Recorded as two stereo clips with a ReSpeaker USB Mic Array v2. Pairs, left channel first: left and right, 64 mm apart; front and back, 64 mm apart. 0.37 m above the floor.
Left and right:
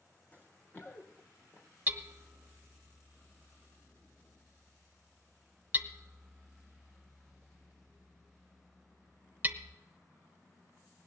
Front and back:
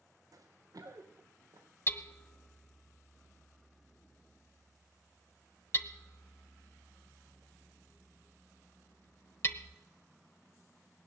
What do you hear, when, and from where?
0.3 s running footsteps: 160° left, 1.6 m; by 1.7 s 140° left, 3.5 m
1.9 s hammering: 40° right, 0.9 m